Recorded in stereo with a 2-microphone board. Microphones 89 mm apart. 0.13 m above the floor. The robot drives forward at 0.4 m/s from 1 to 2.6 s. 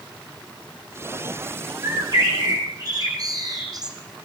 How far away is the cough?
I don't hear a cough.